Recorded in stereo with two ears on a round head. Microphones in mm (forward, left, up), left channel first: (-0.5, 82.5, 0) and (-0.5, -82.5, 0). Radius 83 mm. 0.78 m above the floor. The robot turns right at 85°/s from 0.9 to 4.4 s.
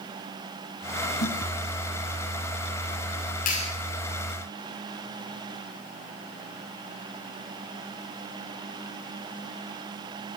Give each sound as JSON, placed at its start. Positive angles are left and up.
{"t": 1.2, "sound": "a snare drum", "side_deg": 75, "distance_m": 4.5}
{"t": 3.5, "sound": "a clap", "side_deg": 50, "distance_m": 5.5}